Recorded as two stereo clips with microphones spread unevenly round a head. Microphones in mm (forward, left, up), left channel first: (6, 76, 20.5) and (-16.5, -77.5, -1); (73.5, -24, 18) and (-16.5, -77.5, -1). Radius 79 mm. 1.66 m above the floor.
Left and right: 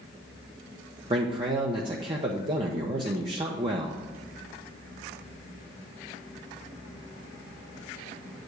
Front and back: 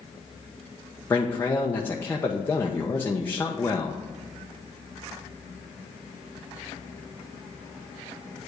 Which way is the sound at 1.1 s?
35° right.